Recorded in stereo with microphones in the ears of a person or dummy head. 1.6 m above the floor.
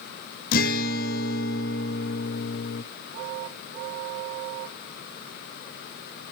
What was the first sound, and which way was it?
A guitar, 50° left (ahead or behind).